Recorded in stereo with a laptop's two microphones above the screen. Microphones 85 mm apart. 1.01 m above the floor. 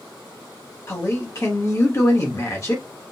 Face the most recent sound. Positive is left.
turn(degrees=35)  # may be behind; listen again after turning